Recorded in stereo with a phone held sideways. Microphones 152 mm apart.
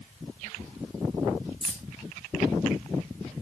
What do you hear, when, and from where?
1.6 s keys jangling: 5° right (ahead or behind), 1.5 m